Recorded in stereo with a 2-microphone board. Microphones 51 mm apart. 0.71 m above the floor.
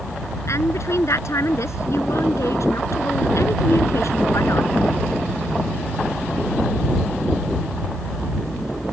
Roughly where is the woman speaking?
Left.